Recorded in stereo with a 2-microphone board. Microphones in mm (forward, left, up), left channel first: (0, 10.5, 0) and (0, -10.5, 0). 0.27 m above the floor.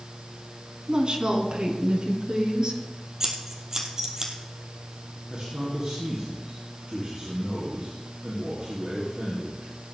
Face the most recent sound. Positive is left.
turn(degrees=-50)  # may be behind; listen again after turning